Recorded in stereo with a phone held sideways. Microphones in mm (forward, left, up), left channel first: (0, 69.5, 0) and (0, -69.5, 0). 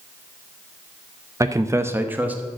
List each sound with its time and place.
1.4 s a man speaking: 25° right (ahead or behind), 0.6 m; by 2.5 s 10° right (ahead or behind), 1.4 m